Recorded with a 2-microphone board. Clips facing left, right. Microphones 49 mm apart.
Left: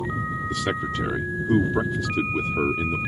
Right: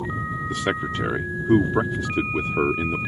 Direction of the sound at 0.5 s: 25° right (ahead or behind).